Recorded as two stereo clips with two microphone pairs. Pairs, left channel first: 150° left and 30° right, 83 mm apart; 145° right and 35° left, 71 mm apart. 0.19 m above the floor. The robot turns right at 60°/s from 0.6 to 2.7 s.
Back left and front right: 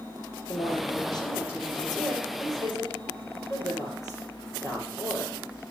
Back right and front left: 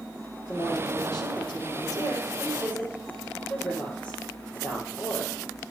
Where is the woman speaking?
160° left, 4 m; by 5.4 s 75° right, 4 m.